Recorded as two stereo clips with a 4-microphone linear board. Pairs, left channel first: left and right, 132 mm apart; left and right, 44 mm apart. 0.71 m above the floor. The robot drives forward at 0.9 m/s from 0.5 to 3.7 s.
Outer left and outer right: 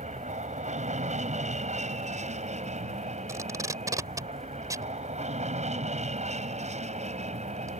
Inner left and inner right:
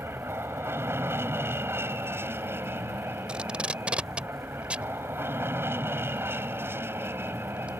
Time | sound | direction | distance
0.0 | an aircraft | 65° right (ahead or behind) | ?
3.3 | tape being pulled | 25° right (ahead or behind) | ?